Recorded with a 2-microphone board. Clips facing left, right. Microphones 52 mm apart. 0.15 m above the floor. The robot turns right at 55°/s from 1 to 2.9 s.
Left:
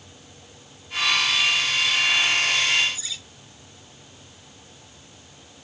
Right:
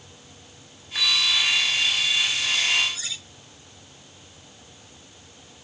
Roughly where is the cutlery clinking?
Right.